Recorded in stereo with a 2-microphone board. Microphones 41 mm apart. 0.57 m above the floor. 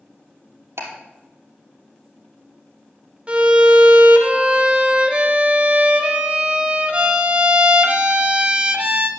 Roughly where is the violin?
Right.